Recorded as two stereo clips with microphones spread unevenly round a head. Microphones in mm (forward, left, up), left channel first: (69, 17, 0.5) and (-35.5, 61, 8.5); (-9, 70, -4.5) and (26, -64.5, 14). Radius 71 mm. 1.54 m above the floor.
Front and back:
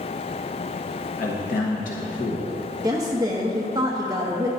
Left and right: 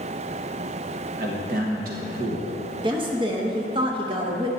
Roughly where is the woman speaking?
Behind right.